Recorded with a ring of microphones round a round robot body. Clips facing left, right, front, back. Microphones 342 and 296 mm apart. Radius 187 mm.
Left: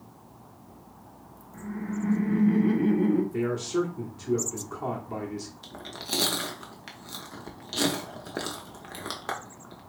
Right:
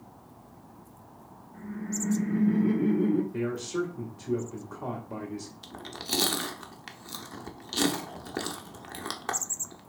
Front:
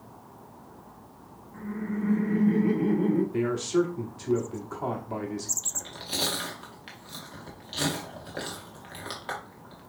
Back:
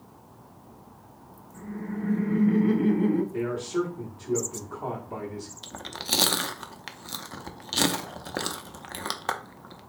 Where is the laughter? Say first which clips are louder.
Left 2 dB, front 2 dB; 35° left, 0.9 m; by 3.2 s 170° left, 1.0 m.